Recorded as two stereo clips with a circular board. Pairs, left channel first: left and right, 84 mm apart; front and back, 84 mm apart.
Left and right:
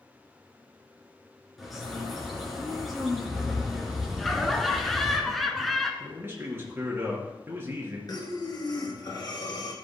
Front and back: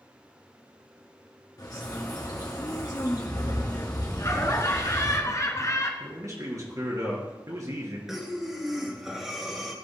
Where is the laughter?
5° left, 1.3 m.